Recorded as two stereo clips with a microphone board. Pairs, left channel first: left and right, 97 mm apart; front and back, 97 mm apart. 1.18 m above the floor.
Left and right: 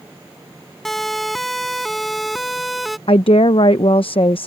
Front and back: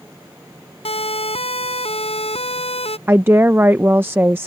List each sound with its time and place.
0.8 s a siren: 5° left; by 3.0 s straight ahead
3.1 s a woman speaking: 110° left